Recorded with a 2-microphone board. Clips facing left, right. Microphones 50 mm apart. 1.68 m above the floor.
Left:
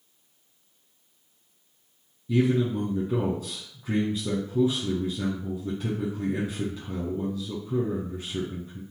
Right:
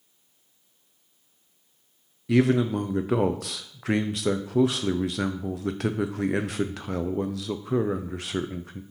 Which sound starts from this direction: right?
A man speaking, at 2.3 s.